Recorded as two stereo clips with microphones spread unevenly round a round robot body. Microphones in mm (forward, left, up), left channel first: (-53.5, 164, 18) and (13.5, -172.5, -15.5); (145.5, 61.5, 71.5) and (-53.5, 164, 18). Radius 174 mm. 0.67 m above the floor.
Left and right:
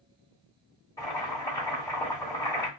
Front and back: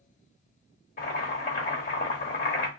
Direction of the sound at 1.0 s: 20° left.